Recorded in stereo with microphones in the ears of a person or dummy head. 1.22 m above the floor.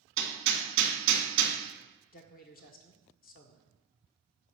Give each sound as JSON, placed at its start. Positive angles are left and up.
{"t": 0.2, "sound": "hammering", "side_deg": -70, "distance_m": 2.5}
{"t": 2.1, "sound": "a man speaking", "side_deg": 40, "distance_m": 0.9}